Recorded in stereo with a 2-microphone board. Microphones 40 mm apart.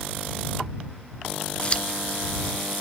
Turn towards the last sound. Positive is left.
turn(degrees=30)  # may be behind; listen again after turning